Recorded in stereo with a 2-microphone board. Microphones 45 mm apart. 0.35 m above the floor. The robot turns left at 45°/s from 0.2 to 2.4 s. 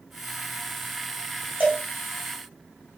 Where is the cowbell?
45° right (ahead or behind), 2 m; by 1.8 s 40° right (ahead or behind), 2 m.